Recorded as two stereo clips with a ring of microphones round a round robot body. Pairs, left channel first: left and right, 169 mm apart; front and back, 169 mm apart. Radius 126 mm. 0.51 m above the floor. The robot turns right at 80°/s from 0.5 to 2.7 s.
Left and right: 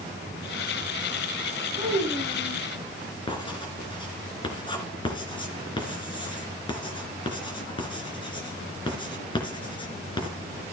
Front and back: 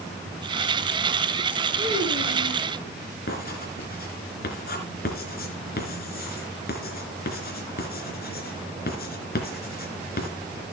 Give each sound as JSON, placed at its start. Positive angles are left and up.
{"t": 1.8, "sound": "a child speaking", "azimuth_deg": -30, "distance_m": 4.5}
{"t": 3.3, "sound": "writing", "azimuth_deg": 30, "distance_m": 3.0}